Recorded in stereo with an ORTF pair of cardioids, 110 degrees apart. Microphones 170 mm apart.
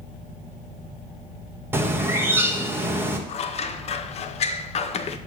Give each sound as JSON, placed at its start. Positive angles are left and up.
{"t": 1.7, "sound": "a bird", "azimuth_deg": -15, "distance_m": 1.0}
{"t": 3.3, "sound": "scissors", "azimuth_deg": 40, "distance_m": 0.5}